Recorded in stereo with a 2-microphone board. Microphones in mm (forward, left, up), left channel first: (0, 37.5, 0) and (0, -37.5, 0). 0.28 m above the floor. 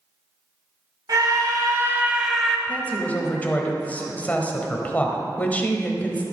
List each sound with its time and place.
1.1 s a scream: 60° right (ahead or behind), 1.9 m; by 2.6 s 10° left (ahead or behind), 1.4 m
2.7 s a woman speaking: 20° left (ahead or behind), 1.2 m